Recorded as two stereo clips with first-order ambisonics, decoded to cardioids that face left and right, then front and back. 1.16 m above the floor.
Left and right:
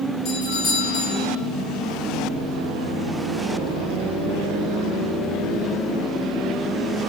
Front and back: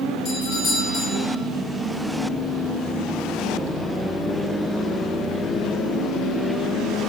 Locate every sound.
0.2 s a doorbell: 55° left, 7 m